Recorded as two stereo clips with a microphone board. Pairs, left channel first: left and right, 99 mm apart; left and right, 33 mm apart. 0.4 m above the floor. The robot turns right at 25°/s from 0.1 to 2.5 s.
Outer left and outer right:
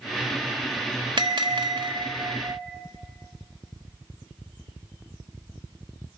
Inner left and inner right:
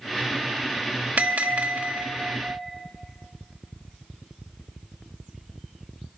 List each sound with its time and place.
1.2 s a bell: 90° right, 1.0 m; by 2.6 s 55° right, 1.0 m